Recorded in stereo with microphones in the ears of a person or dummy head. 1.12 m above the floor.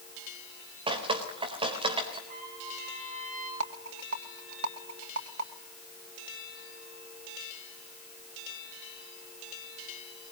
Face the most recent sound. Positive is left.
turn(degrees=-80)